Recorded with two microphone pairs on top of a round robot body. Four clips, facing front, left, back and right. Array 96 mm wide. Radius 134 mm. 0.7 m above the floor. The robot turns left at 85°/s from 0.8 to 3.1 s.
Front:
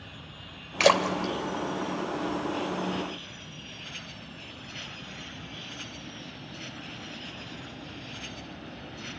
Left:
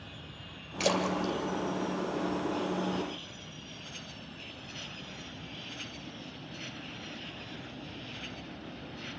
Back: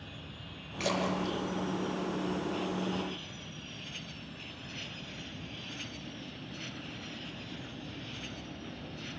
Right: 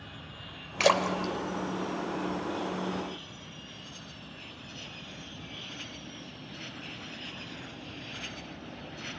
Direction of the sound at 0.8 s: 15° right.